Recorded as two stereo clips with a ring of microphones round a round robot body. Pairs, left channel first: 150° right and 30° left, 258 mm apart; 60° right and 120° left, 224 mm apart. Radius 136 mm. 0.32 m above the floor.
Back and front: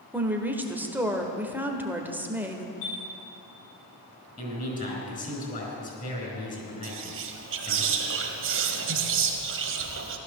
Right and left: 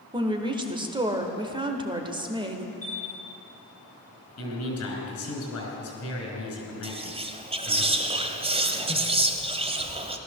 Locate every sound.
0.1 s a woman speaking: 100° left, 1.4 m
2.8 s a chime: 145° right, 6.5 m
4.4 s a man speaking: 90° right, 4 m
6.8 s whispering: 60° left, 1.7 m